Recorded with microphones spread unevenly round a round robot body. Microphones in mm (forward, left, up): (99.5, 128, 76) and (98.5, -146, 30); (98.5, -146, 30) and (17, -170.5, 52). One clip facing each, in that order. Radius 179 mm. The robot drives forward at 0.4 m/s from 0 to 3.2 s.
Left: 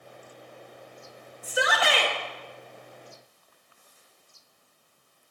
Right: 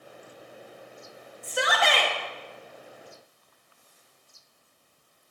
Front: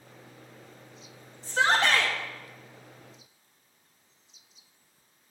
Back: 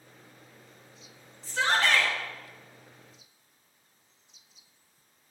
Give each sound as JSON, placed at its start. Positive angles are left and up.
{"t": 1.4, "sound": "a shout", "azimuth_deg": 0, "distance_m": 0.9}